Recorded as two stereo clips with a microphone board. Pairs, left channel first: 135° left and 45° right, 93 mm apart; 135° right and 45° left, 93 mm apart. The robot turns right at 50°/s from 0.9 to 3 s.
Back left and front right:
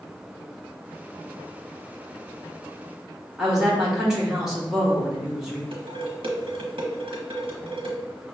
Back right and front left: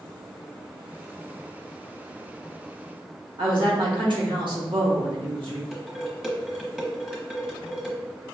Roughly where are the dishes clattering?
Ahead right.